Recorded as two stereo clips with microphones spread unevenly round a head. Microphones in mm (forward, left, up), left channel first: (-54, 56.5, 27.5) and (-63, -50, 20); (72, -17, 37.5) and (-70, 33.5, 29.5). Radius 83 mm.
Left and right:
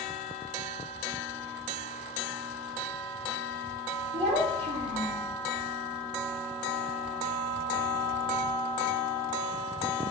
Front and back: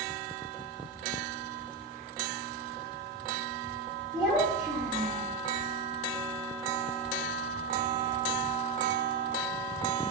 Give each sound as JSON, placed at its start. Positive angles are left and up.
{"t": 4.1, "sound": "a child speaking", "azimuth_deg": -130, "distance_m": 0.5}